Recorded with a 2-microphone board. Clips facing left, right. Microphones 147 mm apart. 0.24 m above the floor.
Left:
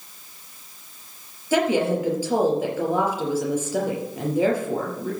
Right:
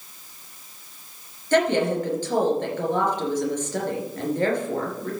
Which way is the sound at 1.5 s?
10° left (ahead or behind).